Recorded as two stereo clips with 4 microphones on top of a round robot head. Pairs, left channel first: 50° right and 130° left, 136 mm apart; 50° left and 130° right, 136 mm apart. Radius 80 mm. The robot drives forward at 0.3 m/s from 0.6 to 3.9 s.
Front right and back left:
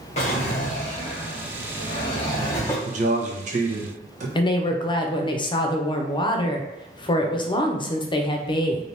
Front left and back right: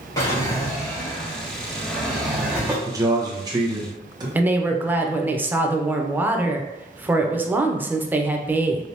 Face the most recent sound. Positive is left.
turn(degrees=-65)